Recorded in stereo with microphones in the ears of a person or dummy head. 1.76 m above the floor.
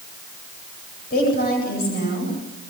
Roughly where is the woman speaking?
Left.